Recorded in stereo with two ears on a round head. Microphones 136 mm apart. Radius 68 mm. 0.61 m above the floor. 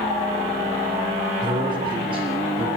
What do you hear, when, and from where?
1.4 s a man speaking: 30° right (ahead or behind), 8 m; by 2.7 s 40° right (ahead or behind), 7.5 m